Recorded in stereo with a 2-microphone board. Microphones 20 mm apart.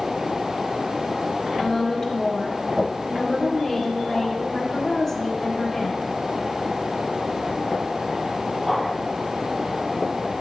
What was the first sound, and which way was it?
A woman speaking, 5° left (ahead or behind).